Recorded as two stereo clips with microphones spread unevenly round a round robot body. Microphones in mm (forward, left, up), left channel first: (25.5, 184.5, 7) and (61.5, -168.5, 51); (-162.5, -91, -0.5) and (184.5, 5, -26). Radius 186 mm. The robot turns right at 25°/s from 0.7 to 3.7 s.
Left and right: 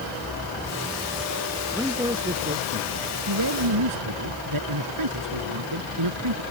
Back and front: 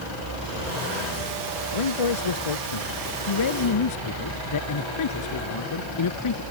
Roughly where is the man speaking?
Behind.